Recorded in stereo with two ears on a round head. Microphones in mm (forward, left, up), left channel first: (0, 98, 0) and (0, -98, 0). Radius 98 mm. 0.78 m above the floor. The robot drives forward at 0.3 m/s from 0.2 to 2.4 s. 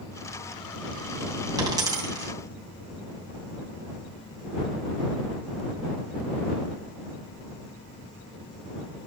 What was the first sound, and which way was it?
A dropped coin, 20° right (ahead or behind).